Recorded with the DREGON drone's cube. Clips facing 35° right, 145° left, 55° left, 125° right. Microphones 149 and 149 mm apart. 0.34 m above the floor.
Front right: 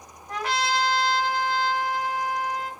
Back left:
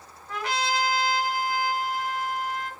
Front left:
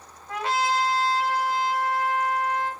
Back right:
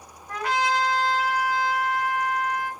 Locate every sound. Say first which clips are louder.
0.3 s a trumpet: front right 2 dB, even; 5° left, 1.2 m